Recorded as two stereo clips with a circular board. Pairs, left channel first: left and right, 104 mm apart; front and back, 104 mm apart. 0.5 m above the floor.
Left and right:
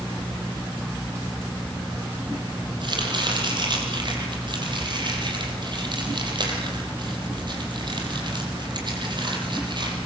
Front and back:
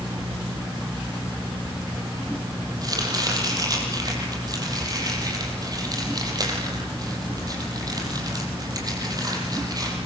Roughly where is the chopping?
Behind right.